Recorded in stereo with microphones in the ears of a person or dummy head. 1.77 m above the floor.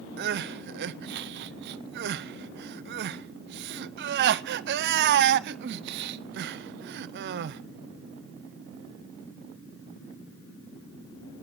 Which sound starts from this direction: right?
Crying, at 0.2 s.